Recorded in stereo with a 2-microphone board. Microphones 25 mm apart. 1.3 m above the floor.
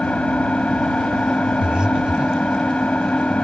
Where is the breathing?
35° right (ahead or behind).